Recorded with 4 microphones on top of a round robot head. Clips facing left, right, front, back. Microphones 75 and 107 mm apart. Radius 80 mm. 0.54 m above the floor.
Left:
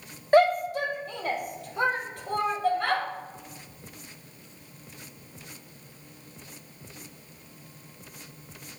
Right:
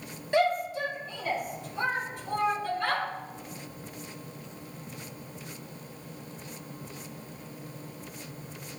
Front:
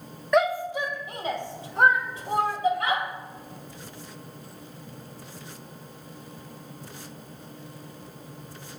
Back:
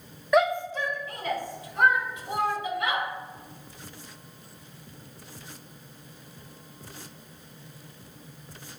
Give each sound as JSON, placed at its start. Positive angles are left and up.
{"t": 0.3, "sound": "a shout", "azimuth_deg": 95, "distance_m": 0.9}